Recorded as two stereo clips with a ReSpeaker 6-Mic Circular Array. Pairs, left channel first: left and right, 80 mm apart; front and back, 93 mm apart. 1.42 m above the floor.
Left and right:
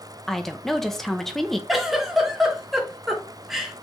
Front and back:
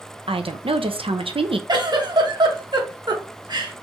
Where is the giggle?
175° right, 0.9 m.